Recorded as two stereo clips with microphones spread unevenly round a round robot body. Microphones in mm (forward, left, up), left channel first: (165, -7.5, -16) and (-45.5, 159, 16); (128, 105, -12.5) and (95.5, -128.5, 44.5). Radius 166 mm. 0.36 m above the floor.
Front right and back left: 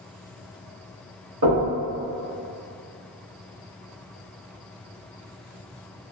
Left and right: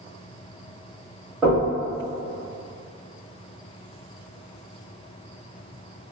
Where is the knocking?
165° left, 1.5 m.